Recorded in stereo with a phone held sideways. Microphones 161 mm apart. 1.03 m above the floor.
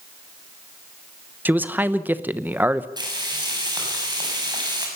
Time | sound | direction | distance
1.4 | a man speaking | 10° right (ahead or behind) | 1.0 m
3.0 | frying | 25° right (ahead or behind) | 6.5 m